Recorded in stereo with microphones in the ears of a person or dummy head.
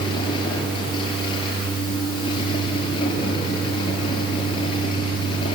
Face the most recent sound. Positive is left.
turn(degrees=30)  # may be behind; listen again after turning